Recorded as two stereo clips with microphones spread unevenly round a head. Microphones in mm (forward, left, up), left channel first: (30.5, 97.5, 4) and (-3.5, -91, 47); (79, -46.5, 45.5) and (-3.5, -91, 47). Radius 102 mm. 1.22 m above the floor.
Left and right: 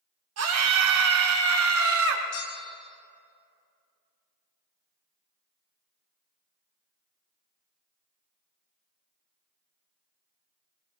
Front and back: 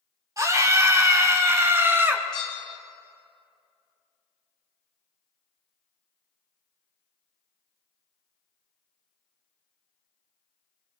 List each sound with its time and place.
0.4 s a scream: 100° right, 2.5 m; by 2.2 s 85° right, 1.8 m
2.3 s a bell: 95° left, 1.3 m